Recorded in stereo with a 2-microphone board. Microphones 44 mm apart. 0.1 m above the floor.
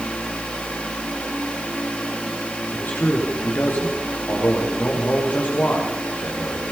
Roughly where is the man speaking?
Left.